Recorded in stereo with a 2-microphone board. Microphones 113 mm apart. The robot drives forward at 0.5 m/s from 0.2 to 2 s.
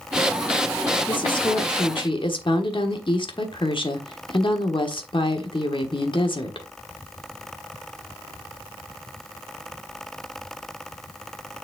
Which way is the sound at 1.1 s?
45° left (ahead or behind).